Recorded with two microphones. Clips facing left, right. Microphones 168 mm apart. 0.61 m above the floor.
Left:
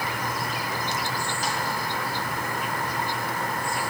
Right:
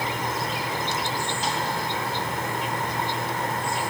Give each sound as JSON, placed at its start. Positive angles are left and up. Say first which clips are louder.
{"t": 0.0, "sound": "an insect", "louder": "right 2 dB", "side_deg": -25}